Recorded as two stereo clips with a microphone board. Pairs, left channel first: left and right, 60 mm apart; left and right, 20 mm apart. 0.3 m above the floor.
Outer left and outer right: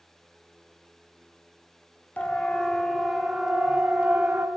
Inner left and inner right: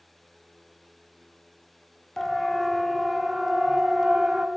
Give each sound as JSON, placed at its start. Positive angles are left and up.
{"t": 2.2, "sound": "a siren", "side_deg": 25, "distance_m": 2.0}